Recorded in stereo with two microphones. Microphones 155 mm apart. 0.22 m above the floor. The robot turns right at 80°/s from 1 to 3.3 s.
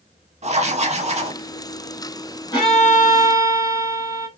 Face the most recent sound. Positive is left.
turn(degrees=85)